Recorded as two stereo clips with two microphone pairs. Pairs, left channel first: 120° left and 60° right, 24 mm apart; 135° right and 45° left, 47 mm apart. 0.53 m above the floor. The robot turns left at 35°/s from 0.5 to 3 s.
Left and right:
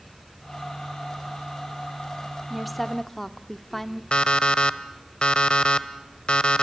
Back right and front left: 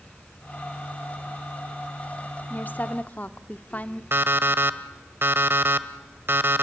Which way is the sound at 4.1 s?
80° left.